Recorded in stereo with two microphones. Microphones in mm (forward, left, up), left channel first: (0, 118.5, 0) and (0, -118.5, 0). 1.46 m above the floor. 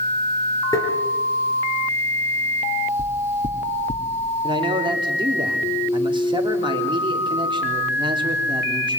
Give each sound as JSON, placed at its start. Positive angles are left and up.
{"t": 0.7, "sound": "tapping", "side_deg": 15, "distance_m": 5.0}
{"t": 3.0, "sound": "knocking", "side_deg": 50, "distance_m": 3.0}
{"t": 4.4, "sound": "a man speaking", "side_deg": -20, "distance_m": 3.5}